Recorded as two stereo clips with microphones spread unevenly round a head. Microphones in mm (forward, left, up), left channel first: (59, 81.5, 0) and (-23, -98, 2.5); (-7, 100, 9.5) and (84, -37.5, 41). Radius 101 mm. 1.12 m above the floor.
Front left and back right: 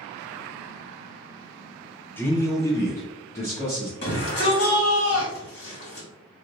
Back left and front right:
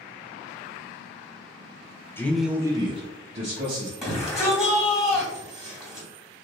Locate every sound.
2.2 s a man speaking: 130° left, 0.5 m; by 3.9 s 10° right, 1.1 m
4.0 s a shout: 40° left, 1.9 m